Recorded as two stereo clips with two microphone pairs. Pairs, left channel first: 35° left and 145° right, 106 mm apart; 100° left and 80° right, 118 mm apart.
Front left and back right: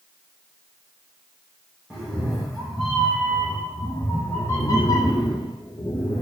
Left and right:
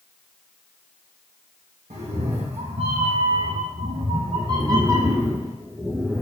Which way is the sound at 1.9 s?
60° right.